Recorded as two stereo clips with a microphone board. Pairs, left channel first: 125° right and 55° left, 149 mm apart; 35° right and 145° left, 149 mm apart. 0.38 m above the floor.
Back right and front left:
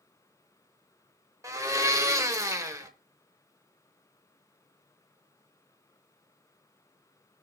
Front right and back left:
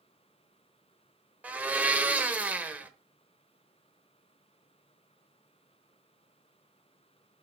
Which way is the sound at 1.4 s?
80° left.